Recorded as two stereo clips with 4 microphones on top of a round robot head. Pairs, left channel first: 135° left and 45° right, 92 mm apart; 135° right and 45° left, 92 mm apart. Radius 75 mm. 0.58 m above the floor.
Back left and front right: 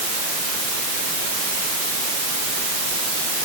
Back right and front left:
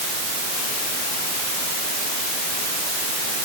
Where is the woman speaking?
I don't hear a woman speaking.